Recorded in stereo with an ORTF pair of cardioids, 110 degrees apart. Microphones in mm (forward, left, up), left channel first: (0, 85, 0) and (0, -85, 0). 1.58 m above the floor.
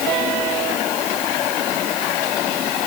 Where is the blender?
I don't hear a blender.